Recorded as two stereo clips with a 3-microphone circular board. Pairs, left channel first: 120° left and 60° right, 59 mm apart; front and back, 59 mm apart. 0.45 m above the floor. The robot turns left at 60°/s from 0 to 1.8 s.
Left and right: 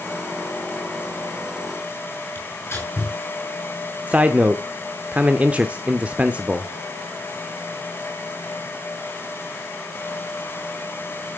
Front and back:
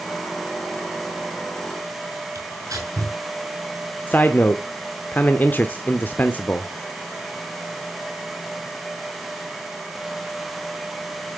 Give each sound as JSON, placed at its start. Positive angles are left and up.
{"t": 2.4, "sound": "tearing paper", "azimuth_deg": 165, "distance_m": 6.0}
{"t": 4.1, "sound": "a man speaking", "azimuth_deg": -15, "distance_m": 0.8}